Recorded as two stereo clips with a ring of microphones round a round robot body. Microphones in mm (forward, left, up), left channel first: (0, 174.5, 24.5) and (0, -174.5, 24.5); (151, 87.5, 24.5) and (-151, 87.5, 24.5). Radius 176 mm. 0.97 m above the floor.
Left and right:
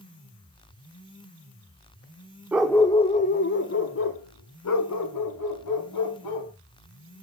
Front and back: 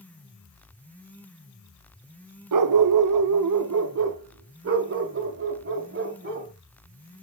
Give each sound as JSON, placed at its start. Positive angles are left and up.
{"t": 2.5, "sound": "a dog barking", "azimuth_deg": -175, "distance_m": 0.8}